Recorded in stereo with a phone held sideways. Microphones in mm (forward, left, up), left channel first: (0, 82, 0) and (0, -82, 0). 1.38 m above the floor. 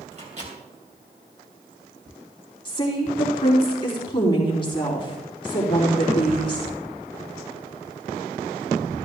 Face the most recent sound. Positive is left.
turn(degrees=30)  # may be behind; listen again after turning